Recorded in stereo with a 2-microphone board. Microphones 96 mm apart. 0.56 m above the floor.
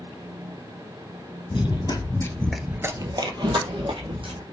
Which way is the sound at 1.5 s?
55° left (ahead or behind).